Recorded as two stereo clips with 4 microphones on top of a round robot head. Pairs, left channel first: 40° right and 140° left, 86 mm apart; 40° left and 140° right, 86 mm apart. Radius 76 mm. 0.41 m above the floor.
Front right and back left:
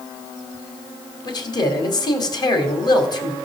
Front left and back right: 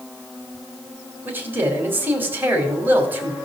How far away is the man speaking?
About 2.5 m.